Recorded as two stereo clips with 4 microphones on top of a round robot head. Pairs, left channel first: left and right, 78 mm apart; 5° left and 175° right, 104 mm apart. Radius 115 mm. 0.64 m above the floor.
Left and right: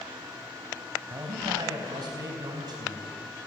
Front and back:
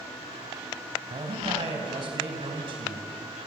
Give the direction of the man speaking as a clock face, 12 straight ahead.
4 o'clock.